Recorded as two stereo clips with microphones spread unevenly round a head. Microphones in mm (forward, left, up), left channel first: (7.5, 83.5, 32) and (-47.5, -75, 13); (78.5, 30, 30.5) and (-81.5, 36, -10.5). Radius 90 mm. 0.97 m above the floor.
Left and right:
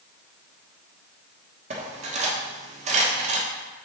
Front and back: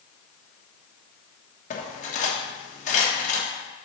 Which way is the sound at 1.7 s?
55° right.